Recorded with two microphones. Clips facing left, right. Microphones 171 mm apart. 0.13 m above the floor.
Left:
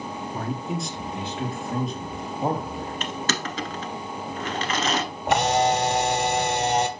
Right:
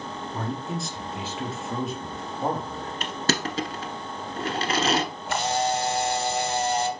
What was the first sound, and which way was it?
A man speaking, centre (ahead or behind).